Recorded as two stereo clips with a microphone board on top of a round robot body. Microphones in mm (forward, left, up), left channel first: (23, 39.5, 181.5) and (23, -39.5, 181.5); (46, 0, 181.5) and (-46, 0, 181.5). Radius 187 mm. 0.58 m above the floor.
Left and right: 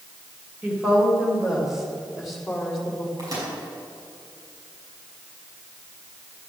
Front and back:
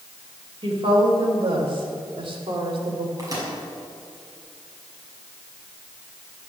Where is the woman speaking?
165° right, 4 m; by 3.1 s 170° left, 3.5 m.